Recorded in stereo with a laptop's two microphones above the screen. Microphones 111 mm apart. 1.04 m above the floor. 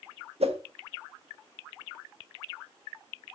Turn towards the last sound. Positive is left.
turn(degrees=-65)  # may be behind; listen again after turning